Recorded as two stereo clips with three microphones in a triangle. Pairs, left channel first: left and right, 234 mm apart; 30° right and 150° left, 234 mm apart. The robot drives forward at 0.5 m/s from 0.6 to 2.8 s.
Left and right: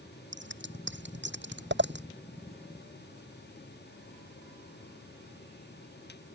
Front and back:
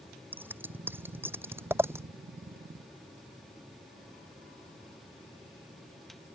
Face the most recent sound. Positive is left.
turn(degrees=-130)